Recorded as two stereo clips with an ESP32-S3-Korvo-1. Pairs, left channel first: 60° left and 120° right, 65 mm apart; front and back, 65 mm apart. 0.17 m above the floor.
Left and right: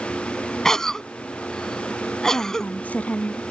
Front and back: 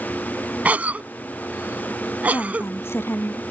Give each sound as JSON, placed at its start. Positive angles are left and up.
{"t": 0.7, "sound": "a cough", "azimuth_deg": 135}
{"t": 2.3, "sound": "a woman speaking", "azimuth_deg": 10}